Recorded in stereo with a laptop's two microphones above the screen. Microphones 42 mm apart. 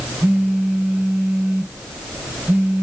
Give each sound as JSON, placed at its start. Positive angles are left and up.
{"t": 0.2, "sound": "a phone buzzing", "side_deg": -40, "distance_m": 0.8}